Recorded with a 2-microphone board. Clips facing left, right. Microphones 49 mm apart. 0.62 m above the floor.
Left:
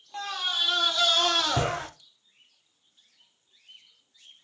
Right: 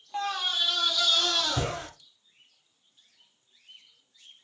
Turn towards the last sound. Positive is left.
turn(degrees=45)  # may be behind; listen again after turning